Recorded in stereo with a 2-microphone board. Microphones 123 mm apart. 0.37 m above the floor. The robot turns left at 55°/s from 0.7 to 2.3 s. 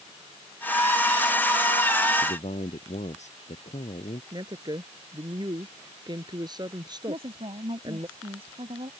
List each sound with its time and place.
2.2 s a man speaking: 65° left (ahead or behind); by 4.2 s 70° left (ahead or behind)
4.3 s a woman speaking: 35° right (ahead or behind)
7.1 s a woman speaking: 50° right (ahead or behind)